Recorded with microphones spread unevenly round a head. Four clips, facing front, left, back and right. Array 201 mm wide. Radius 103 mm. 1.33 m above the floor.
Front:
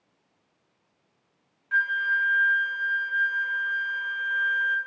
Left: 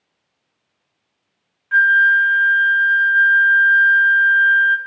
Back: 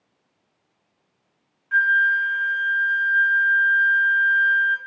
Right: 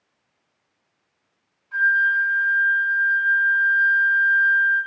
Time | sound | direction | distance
1.7 | a flute | 70° left | 1.0 m